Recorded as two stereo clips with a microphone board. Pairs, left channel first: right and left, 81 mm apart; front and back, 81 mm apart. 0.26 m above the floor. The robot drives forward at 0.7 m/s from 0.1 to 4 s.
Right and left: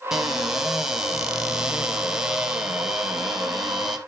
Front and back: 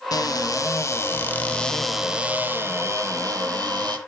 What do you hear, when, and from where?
0.1 s a cupboard door: 5° left, 1.6 m; by 4.0 s 175° left, 1.7 m